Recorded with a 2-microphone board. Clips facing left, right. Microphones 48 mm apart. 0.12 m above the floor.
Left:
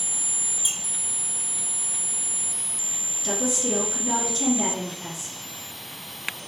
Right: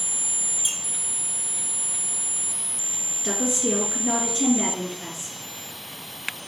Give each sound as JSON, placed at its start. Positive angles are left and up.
{"t": 0.6, "sound": "a squeak", "side_deg": 0, "distance_m": 0.8}
{"t": 3.2, "sound": "a woman speaking", "side_deg": -30, "distance_m": 1.8}